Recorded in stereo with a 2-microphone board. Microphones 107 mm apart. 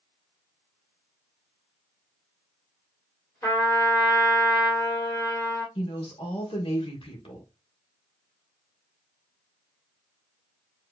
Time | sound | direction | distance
3.4 | a trumpet | 25° left (ahead or behind) | 2.0 m
5.8 | a woman speaking | 60° left (ahead or behind) | 1.3 m